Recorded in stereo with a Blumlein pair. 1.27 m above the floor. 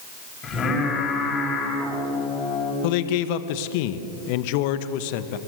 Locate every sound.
0.4 s singing: 25° left, 8.5 m
2.8 s a man speaking: 45° left, 1.3 m